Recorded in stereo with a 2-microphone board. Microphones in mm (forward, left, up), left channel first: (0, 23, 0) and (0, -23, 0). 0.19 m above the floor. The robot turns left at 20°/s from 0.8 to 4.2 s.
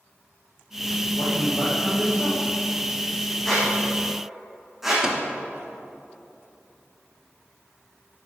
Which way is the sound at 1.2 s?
75° left (ahead or behind).